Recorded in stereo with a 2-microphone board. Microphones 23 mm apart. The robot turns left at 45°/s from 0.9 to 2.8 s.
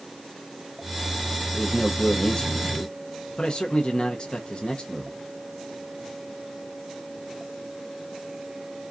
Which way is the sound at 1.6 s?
170° left.